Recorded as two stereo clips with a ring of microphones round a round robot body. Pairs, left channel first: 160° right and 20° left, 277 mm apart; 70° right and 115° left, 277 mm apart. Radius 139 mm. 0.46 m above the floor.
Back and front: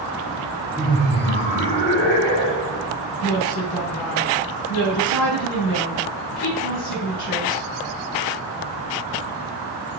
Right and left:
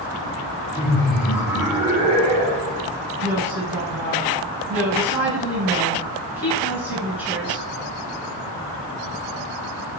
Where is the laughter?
140° right, 1.3 m; by 2.9 s 165° left, 1.9 m.